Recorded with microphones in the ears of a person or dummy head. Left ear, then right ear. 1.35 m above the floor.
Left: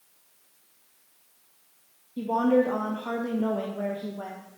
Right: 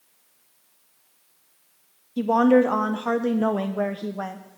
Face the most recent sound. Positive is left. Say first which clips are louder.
# right 5 dB
turn(degrees=-50)  # may be behind; listen again after turning